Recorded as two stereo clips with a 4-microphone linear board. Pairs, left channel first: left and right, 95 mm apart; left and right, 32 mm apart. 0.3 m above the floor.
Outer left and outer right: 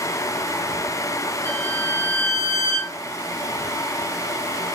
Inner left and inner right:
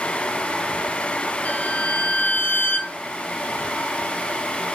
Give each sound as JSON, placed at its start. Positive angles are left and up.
{"t": 1.4, "sound": "a violin", "side_deg": 30, "distance_m": 1.0}